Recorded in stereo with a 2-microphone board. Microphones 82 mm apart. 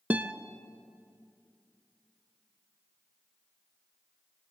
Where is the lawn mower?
No lawn mower in this recording.